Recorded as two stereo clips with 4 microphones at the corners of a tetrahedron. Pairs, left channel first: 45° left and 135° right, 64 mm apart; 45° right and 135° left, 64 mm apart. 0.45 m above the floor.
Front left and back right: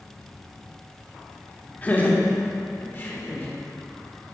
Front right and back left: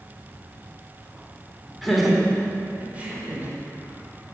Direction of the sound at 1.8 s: 40° left.